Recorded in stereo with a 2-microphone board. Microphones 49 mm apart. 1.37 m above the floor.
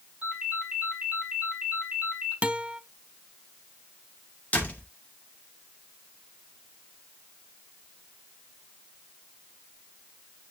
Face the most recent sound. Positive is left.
turn(degrees=30)  # may be behind; listen again after turning